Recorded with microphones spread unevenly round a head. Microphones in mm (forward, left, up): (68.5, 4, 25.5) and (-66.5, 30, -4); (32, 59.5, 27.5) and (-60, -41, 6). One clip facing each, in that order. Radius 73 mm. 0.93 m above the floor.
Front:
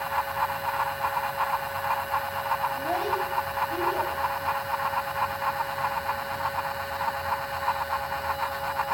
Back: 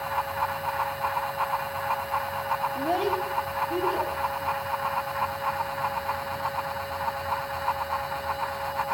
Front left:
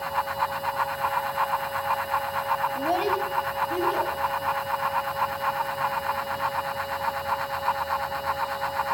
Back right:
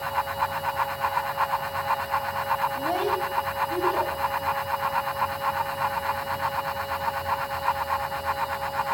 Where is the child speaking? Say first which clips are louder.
Back 2 dB, front left 1 dB; 110° left, 1.2 m; by 4.1 s 125° left, 2.5 m.